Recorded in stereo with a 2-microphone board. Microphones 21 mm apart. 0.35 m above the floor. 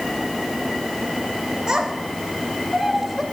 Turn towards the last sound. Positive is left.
turn(degrees=0)  # may be behind; listen again after turning